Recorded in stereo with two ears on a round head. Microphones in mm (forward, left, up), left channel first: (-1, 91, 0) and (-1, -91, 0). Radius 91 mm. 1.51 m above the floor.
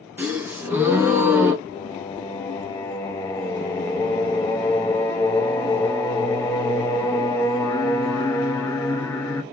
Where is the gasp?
10° right (ahead or behind), 1.0 m.